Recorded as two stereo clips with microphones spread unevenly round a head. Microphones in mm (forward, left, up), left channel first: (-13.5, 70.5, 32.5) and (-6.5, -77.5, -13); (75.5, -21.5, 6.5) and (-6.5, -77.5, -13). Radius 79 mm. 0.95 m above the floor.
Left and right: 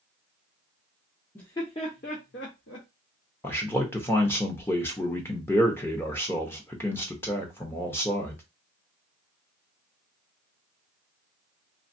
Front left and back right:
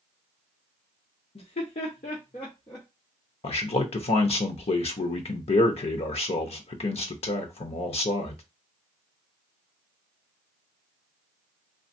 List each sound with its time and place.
1.4 s laughter: 5° left, 0.9 m; by 2.9 s 100° left, 1.0 m
3.4 s a man speaking: 10° left, 0.7 m